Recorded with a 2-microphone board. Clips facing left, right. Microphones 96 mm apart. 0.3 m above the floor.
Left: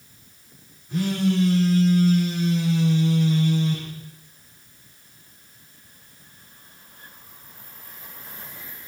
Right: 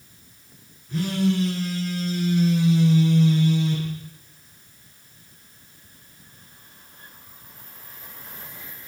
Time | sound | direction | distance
0.9 | a phone buzzing | centre (ahead or behind) | 10 m